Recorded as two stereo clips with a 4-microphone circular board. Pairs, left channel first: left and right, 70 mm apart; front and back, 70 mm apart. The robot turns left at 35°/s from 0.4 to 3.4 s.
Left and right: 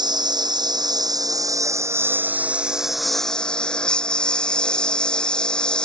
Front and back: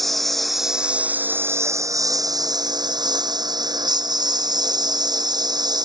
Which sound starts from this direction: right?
A lawn mower, at 0.0 s.